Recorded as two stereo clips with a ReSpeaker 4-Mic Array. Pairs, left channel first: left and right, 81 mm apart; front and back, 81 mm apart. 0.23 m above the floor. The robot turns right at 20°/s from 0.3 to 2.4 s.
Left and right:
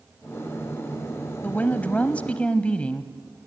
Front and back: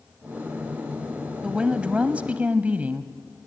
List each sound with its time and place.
1.4 s a woman speaking: 120° left, 1.0 m; by 3.1 s 140° left, 1.0 m